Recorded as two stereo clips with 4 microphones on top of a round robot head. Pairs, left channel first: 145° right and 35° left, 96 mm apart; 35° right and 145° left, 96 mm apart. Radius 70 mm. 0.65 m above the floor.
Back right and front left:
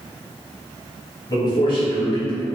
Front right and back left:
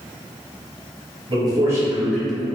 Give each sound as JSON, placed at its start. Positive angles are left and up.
{"t": 1.3, "sound": "a man speaking", "azimuth_deg": 175, "distance_m": 1.8}